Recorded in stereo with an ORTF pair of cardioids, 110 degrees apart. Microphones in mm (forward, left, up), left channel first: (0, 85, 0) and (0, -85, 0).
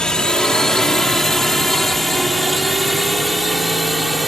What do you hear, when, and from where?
0.0 s a drone: 5° left; by 4.3 s straight ahead